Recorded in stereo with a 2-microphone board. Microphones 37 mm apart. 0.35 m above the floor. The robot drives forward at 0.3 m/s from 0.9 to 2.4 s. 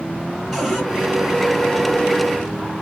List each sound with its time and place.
0.5 s a cupboard door: centre (ahead or behind), 1.6 m